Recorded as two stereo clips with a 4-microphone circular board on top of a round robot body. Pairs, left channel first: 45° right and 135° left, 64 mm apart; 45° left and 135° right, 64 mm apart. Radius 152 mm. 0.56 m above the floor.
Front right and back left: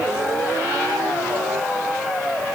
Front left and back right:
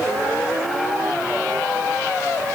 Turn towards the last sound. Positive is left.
No sound to turn to.